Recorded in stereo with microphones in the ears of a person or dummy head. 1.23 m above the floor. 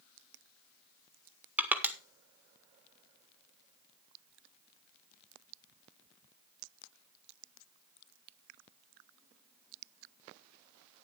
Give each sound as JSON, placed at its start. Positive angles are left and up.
{"t": 1.6, "sound": "crushing", "side_deg": -10, "distance_m": 1.7}